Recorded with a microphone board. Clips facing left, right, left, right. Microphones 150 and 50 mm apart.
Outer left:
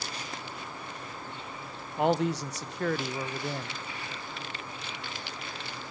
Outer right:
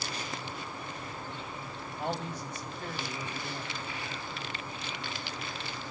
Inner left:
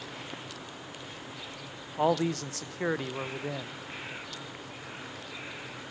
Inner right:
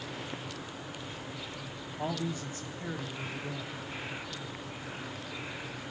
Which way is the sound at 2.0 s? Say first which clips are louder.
Outer left 10 dB, inner left 9 dB; 75° left (ahead or behind).